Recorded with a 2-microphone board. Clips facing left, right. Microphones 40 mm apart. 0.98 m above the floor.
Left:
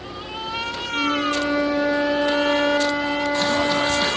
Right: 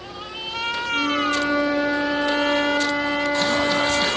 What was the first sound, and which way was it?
A flute, 15° right (ahead or behind).